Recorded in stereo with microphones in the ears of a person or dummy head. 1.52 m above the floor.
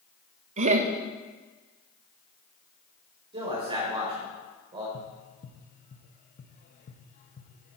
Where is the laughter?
45° right (ahead or behind), 1.3 m.